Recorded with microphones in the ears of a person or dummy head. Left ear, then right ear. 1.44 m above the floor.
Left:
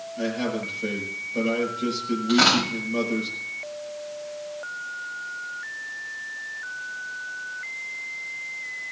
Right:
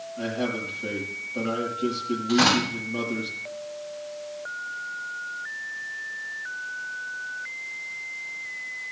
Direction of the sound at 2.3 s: 20° left (ahead or behind).